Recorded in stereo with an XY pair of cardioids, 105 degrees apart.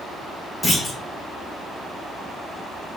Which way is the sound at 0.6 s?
20° left.